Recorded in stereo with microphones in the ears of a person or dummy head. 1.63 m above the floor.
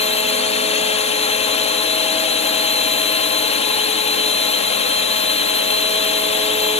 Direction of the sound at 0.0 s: 30° left (ahead or behind).